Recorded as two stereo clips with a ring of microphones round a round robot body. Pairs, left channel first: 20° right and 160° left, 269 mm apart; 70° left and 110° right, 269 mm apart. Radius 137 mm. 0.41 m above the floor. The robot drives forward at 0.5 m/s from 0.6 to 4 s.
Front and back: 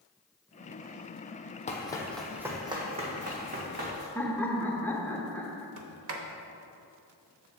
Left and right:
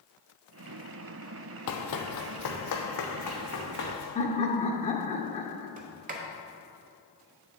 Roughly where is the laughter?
Ahead left.